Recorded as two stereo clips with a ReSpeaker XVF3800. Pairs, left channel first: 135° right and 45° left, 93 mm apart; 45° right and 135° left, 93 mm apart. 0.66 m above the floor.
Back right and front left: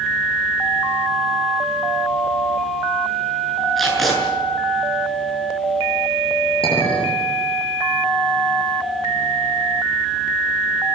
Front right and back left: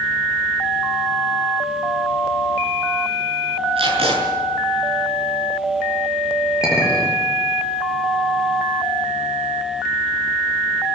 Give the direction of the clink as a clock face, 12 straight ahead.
5 o'clock.